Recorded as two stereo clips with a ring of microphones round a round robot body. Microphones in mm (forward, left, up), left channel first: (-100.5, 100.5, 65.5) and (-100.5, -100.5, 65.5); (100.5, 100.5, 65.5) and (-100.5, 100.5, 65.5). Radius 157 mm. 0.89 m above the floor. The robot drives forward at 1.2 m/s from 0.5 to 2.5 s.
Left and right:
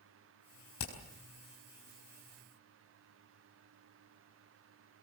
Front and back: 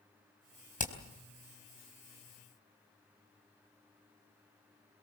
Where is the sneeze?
I don't hear a sneeze.